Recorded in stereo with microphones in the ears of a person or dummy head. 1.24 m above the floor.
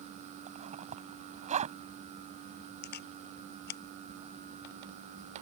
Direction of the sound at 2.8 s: 55° left (ahead or behind).